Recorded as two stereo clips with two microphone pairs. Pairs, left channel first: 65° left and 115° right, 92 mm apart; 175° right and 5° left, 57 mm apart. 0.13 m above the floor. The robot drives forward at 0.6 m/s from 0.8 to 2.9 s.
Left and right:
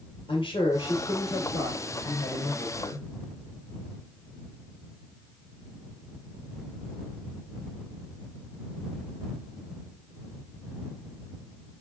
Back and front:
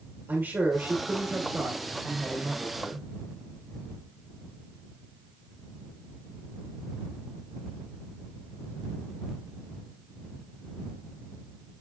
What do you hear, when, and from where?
0.3 s a man speaking: 55° left, 3.5 m; by 3.1 s 75° left, 3 m